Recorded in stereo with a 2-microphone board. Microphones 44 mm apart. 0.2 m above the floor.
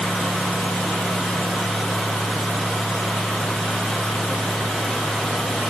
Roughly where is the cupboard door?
I don't hear a cupboard door.